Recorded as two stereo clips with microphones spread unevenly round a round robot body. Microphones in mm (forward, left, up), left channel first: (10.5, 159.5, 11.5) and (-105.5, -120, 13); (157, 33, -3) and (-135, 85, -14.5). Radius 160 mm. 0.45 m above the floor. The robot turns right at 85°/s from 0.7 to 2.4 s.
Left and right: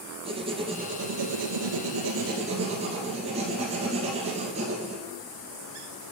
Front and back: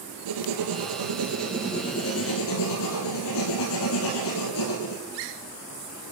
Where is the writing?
175° left, 2 m; by 5.0 s 40° right, 2 m.